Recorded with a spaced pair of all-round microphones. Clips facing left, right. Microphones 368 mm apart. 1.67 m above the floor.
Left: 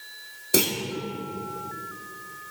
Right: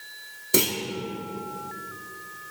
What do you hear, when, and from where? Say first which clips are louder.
0.5 s a clunk: even; 5° right (ahead or behind), 1.4 m